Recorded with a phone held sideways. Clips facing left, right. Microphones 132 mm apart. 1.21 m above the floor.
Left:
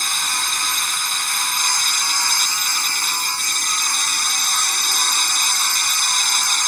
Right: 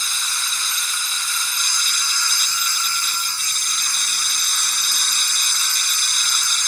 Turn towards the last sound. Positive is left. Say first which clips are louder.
# left 5 dB
turn(degrees=60)  # may be behind; listen again after turning